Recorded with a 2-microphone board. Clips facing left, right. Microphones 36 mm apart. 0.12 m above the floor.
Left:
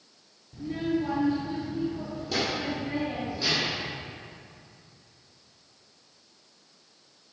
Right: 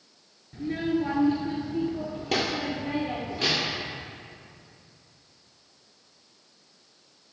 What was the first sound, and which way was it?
A child speaking, 45° right (ahead or behind).